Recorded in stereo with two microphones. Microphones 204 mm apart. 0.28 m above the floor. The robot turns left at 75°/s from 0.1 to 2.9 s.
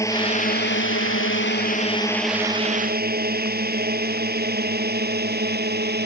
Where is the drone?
15° left (ahead or behind); by 6.0 s 50° right (ahead or behind).